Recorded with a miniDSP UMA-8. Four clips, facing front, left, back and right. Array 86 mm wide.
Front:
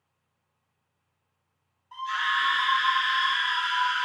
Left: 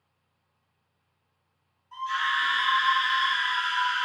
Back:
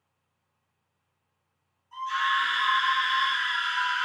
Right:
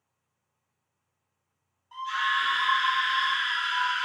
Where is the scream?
35° right, 1.3 m.